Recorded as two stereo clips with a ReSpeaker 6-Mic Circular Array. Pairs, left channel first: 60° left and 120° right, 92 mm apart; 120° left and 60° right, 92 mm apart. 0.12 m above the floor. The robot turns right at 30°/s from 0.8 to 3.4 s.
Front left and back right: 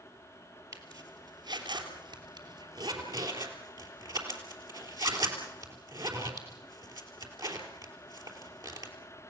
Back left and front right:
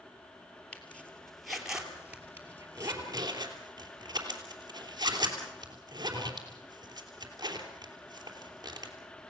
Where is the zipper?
170° right, 3 m; by 8.9 s 90° right, 3 m.